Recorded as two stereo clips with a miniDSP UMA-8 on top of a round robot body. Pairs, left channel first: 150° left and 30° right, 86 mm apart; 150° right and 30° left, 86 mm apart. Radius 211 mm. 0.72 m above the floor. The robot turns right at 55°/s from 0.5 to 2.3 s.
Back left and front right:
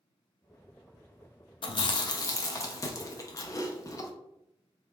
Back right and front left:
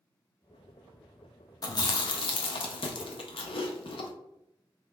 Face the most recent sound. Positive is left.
turn(degrees=-160)